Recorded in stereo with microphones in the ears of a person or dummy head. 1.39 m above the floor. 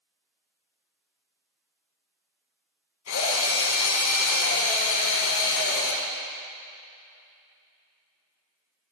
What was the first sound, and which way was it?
A drill, 80° left.